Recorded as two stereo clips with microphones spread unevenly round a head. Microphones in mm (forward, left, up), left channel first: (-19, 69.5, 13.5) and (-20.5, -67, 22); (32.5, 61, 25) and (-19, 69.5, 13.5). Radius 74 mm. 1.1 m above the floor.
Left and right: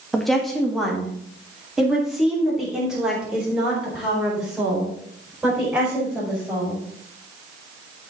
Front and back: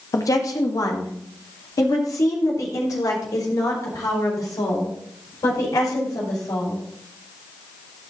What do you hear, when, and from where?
0.1 s a woman speaking: straight ahead, 1.6 m; by 6.8 s 5° right, 6 m